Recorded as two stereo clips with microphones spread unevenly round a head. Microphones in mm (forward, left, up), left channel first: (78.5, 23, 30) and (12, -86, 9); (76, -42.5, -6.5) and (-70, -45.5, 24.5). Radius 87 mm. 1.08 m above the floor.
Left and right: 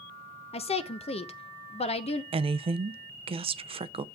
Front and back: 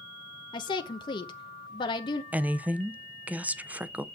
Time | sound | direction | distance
0.5 | a woman speaking | 30° left | 0.8 m
2.3 | a woman speaking | 90° right | 0.5 m